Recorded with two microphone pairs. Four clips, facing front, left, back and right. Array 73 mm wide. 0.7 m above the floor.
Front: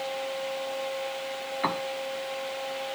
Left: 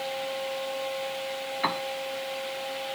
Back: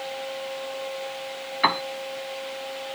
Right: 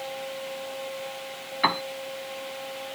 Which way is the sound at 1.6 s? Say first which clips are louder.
Right 5 dB, back 7 dB; 160° right.